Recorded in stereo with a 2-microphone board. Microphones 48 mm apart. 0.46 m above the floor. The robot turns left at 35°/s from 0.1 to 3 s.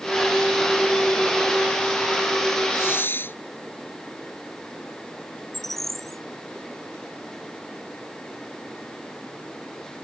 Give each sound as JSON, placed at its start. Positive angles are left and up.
{"t": 2.7, "sound": "a hiss", "side_deg": 55}
{"t": 5.5, "sound": "a bird", "side_deg": 5}